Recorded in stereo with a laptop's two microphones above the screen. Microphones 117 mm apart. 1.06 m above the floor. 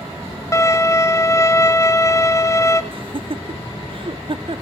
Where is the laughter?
50° right (ahead or behind), 0.7 m.